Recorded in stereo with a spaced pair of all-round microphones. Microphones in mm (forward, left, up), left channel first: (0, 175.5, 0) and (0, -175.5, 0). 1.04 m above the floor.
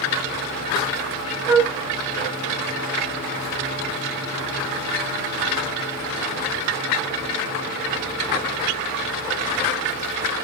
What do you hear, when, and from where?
1.5 s a flute: 10° right (ahead or behind), 0.5 m